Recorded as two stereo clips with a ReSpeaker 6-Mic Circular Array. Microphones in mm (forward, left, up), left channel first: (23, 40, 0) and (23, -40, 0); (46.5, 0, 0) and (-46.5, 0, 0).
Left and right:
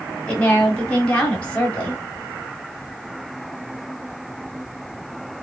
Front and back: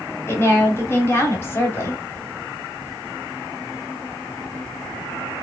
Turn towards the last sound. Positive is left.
turn(degrees=30)